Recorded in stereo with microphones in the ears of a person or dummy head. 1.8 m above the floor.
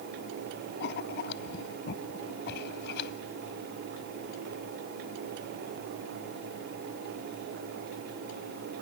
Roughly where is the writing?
Left.